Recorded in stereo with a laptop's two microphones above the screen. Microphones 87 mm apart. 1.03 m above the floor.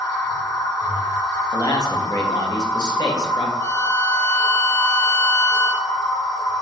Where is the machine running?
60° left (ahead or behind), 1.4 m.